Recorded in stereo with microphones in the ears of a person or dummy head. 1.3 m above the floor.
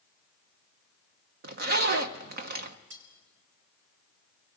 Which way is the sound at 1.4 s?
55° right (ahead or behind).